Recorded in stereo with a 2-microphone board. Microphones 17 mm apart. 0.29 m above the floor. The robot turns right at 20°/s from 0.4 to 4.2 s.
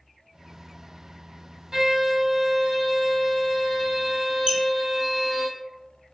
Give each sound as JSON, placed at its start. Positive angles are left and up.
{"t": 1.7, "sound": "a violin", "azimuth_deg": -60, "distance_m": 1.0}
{"t": 4.5, "sound": "a squeak", "side_deg": -65, "distance_m": 0.7}